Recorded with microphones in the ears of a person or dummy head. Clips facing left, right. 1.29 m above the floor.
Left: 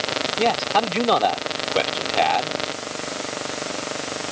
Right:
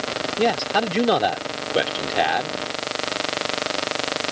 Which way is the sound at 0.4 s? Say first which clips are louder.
Even; 15° right (ahead or behind).